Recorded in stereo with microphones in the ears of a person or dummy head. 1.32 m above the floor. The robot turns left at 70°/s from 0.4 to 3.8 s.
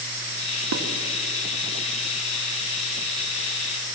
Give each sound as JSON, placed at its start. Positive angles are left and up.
{"t": 0.7, "sound": "dishes clattering", "side_deg": -85, "distance_m": 2.0}